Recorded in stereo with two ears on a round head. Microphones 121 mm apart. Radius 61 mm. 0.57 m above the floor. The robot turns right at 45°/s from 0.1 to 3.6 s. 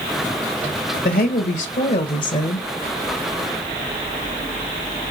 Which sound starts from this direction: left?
A woman speaking, at 1.1 s.